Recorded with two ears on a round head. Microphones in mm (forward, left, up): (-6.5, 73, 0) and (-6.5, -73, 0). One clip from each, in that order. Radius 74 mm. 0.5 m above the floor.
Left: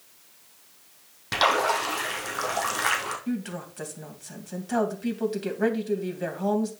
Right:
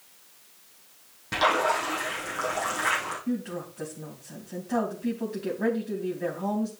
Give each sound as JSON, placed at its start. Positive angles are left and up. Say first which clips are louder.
{"t": 1.3, "sound": "a splash", "louder": "left 1 dB", "side_deg": 45, "distance_m": 3.0}
{"t": 3.3, "sound": "a woman speaking", "louder": "right 1 dB", "side_deg": 65, "distance_m": 3.0}